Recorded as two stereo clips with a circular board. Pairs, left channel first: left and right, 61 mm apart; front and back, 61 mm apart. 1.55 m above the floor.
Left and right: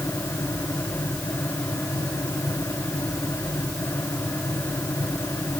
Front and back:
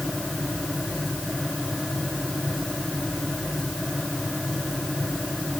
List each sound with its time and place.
Only background noise.